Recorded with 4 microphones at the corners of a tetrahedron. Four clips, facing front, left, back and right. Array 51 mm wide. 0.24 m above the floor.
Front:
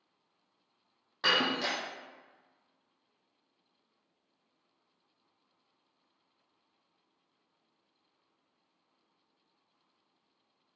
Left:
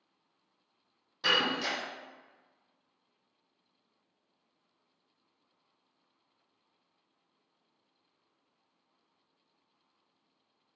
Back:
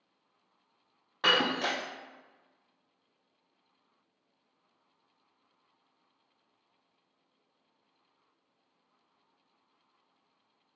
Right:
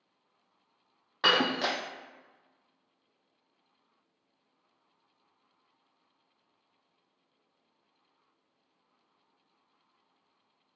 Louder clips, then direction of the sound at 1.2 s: Right 3 dB, back 2 dB; 110° right.